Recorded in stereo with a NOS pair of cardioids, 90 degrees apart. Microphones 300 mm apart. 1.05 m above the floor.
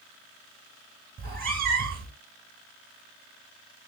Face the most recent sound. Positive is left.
turn(degrees=-30)